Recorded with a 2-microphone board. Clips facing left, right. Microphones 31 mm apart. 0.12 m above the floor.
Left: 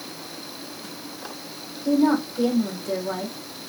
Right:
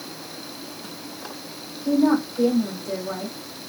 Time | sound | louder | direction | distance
1.9 | a woman speaking | even | 40° left (ahead or behind) | 4.5 m